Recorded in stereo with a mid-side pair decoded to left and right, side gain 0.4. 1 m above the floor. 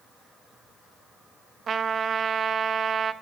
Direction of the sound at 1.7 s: 55° right.